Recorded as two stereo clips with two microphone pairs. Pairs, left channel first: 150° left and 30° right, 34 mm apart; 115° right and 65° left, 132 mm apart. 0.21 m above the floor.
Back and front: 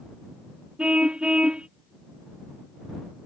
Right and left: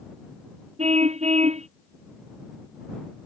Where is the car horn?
30° left.